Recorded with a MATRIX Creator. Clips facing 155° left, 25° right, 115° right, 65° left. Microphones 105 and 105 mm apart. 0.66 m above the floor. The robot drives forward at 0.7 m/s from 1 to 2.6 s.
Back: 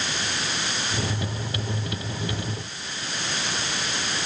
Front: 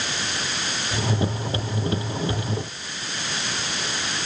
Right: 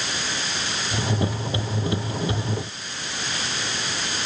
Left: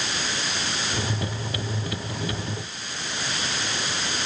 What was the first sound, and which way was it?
Only background noise.